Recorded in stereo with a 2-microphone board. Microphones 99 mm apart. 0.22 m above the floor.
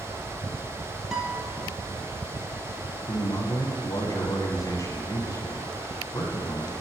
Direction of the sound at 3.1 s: 35° left (ahead or behind).